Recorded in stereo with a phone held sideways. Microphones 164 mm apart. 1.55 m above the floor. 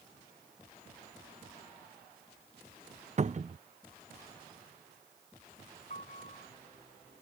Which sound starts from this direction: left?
A piano, at 5.9 s.